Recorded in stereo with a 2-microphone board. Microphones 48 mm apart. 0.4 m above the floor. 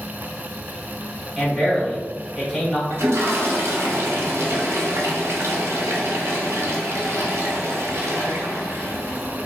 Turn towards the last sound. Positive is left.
turn(degrees=-75)  # may be behind; listen again after turning